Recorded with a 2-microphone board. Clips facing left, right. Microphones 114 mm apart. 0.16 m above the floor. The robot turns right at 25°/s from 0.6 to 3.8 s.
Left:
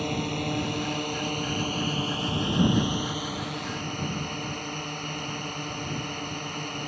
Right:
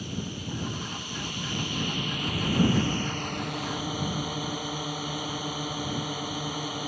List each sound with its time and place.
0.0 s a drone: 105° left; by 6.9 s 175° right